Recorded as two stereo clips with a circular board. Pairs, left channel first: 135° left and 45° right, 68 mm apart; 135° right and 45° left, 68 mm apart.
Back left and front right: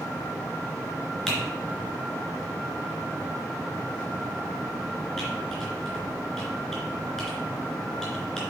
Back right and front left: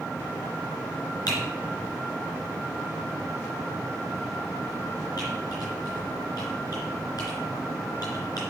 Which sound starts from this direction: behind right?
Typing on a keyboard, at 1.3 s.